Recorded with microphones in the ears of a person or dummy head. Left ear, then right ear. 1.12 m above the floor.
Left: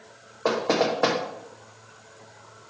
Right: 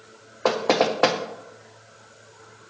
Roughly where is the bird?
No bird in this recording.